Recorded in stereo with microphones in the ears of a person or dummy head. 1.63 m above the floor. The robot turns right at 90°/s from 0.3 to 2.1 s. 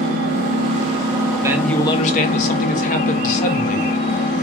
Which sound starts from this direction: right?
An engine running, at 0.0 s.